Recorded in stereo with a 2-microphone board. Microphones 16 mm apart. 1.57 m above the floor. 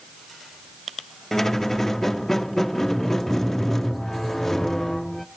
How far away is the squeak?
About 0.6 m.